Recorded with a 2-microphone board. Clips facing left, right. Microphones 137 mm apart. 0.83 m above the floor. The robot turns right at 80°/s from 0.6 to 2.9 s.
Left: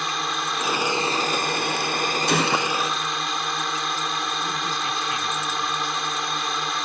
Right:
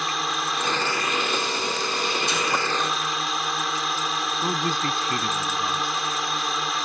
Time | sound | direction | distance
0.0 | a drone | straight ahead | ?
2.3 | a gunshot | 60° left | ?
4.4 | a man speaking | 50° right (ahead or behind) | ?